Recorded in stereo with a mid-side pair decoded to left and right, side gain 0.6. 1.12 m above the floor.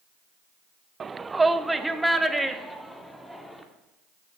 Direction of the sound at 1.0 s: 30° right.